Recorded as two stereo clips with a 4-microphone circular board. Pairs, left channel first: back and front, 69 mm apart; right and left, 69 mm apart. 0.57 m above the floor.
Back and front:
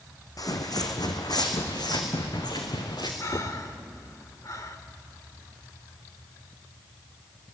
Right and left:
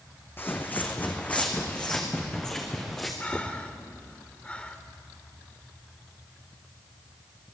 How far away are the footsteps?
About 2.5 m.